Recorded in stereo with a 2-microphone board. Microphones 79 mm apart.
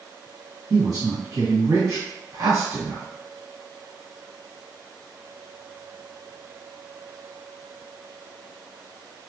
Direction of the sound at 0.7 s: 45° right (ahead or behind).